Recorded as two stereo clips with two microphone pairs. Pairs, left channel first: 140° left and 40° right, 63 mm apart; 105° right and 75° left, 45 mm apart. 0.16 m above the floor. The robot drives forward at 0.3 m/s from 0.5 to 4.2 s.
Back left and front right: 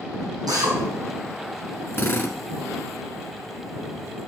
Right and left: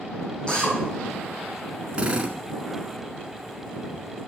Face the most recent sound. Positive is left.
turn(degrees=145)